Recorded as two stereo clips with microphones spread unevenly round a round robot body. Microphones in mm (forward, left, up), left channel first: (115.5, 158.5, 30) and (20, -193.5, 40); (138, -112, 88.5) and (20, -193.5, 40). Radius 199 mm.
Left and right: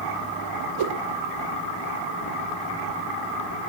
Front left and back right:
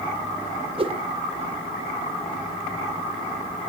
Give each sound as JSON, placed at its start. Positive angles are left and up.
{"t": 0.8, "sound": "a whoosh", "azimuth_deg": -115, "distance_m": 2.5}